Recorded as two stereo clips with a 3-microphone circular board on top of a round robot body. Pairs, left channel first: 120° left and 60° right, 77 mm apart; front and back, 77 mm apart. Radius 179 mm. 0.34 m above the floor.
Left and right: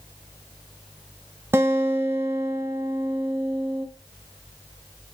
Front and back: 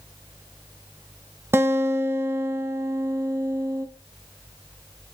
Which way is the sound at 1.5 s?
120° right.